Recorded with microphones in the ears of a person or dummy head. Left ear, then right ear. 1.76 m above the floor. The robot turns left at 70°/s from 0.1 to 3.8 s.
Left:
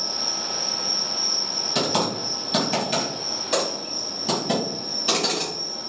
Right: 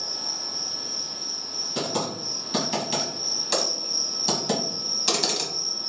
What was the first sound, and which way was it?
An insect, straight behind.